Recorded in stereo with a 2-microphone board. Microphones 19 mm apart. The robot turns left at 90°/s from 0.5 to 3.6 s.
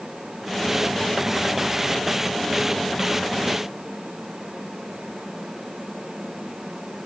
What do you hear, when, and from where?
Only background noise.